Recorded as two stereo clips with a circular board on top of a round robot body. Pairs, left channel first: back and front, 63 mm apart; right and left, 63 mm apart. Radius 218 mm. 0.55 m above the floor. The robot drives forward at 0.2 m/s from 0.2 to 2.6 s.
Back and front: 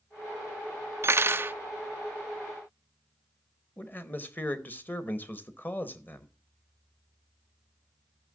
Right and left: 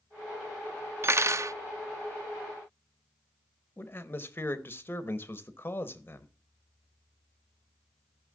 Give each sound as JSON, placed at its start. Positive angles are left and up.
{"t": 1.0, "sound": "cutlery clinking", "azimuth_deg": 45, "distance_m": 0.6}
{"t": 3.8, "sound": "a man speaking", "azimuth_deg": -130, "distance_m": 1.2}